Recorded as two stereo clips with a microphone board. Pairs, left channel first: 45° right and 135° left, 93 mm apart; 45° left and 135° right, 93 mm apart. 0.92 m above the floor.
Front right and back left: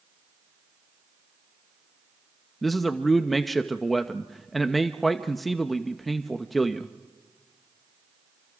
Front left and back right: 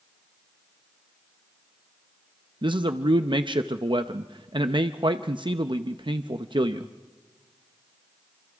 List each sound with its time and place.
2.6 s a man speaking: 135° right, 0.8 m